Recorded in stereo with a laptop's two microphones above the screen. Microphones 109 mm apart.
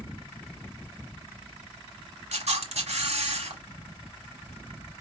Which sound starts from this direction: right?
A camera shutter, at 2.3 s.